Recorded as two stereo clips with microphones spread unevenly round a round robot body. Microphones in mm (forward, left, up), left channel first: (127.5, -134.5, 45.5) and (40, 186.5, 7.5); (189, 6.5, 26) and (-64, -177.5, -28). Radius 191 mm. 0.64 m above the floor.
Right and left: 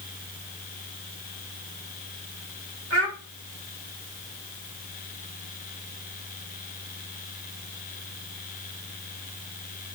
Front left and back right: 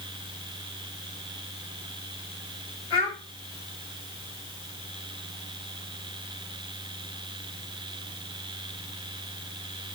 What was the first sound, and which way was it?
A child speaking, 50° left.